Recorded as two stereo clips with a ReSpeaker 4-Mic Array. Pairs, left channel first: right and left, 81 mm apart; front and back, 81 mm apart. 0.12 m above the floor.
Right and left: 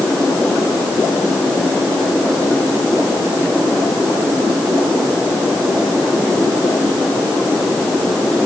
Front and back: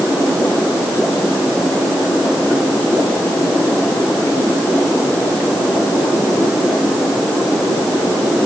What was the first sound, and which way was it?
Only background noise.